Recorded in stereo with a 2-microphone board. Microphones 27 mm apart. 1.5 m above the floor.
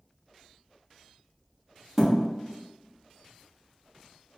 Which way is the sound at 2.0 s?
10° right (ahead or behind).